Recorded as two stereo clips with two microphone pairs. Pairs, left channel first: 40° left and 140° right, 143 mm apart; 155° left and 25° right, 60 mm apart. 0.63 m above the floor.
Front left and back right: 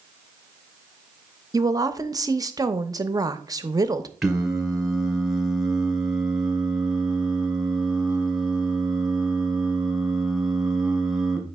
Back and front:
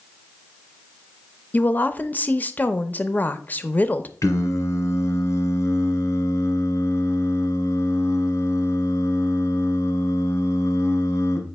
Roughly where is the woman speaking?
Behind.